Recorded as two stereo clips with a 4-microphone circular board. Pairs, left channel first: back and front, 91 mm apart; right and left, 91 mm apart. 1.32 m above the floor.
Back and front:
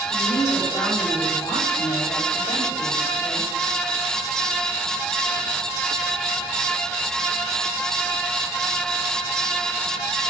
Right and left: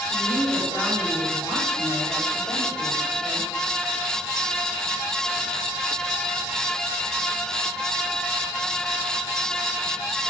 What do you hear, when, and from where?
0.1 s a woman speaking: 145° right, 7 m